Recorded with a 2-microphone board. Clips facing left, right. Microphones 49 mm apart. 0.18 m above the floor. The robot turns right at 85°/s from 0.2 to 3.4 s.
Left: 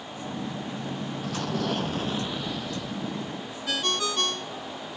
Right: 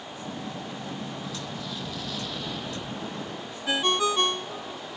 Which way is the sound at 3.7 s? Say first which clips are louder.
Right 4 dB; 25° right (ahead or behind).